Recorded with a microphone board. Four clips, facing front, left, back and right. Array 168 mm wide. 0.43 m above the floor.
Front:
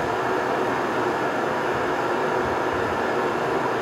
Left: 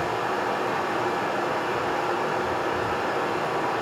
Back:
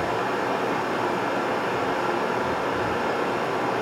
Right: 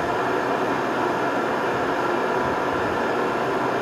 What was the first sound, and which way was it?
Running water, 50° right.